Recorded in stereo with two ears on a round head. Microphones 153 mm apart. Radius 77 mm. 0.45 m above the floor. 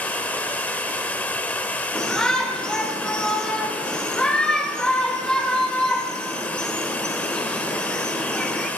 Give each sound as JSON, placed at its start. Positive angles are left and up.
{"t": 0.0, "sound": "running water", "side_deg": 10, "distance_m": 0.8}
{"t": 1.9, "sound": "a shout", "side_deg": 5, "distance_m": 1.4}